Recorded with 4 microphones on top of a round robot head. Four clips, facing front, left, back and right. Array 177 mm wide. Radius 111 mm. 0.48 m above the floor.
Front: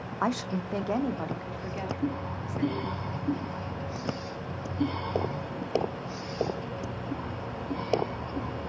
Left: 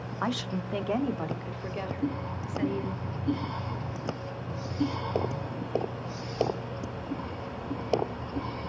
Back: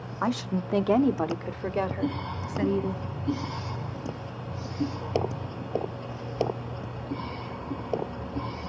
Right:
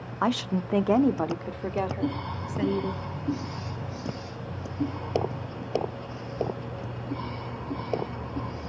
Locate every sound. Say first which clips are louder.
0.2 s a woman speaking: right 5 dB, back 1 dB; 75° right, 0.7 m; by 3.0 s 145° right, 1.7 m